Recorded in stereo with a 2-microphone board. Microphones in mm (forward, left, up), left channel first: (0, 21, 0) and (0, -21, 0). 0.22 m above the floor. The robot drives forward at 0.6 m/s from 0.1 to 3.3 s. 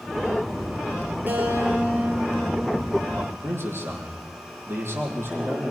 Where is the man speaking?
65° right (ahead or behind), 7.5 m.